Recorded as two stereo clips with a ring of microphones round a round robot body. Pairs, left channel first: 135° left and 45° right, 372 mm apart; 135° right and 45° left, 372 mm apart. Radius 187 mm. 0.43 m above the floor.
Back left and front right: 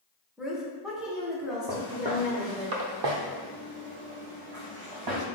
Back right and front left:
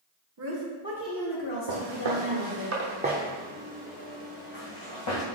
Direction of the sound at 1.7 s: 35° left.